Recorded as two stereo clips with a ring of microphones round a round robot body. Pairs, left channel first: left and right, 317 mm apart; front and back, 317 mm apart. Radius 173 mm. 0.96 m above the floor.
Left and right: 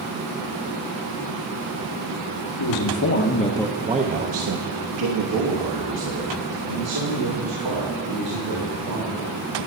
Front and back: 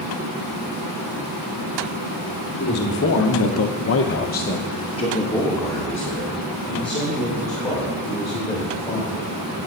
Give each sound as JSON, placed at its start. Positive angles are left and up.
{"t": 2.6, "sound": "a man speaking", "azimuth_deg": 60, "distance_m": 1.0}